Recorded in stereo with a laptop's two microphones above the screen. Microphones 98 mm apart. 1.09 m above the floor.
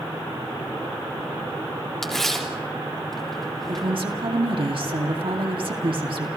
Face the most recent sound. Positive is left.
turn(degrees=-65)  # may be behind; listen again after turning